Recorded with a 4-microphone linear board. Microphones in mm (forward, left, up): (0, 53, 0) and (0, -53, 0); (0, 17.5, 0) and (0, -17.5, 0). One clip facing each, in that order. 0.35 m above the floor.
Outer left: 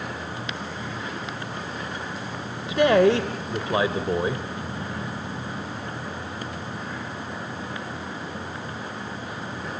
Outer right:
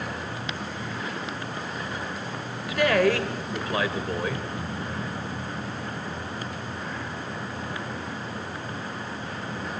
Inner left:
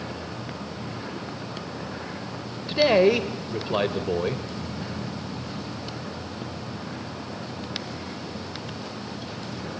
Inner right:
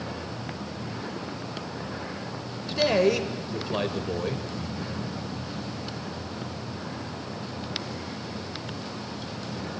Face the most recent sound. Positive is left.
turn(degrees=20)  # may be behind; listen again after turning